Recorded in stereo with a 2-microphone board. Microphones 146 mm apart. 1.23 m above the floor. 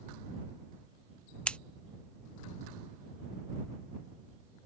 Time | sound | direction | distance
1.5 | scissors | 10° left (ahead or behind) | ?